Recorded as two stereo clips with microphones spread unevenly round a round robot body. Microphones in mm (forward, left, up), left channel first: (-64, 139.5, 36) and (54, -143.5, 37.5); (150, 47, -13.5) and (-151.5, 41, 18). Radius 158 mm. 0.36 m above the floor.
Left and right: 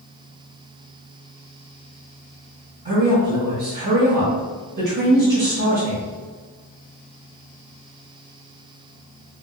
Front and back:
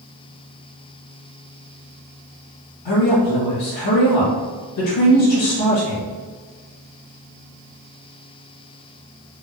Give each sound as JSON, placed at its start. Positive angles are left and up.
{"t": 2.9, "sound": "a woman speaking", "azimuth_deg": -15, "distance_m": 1.9}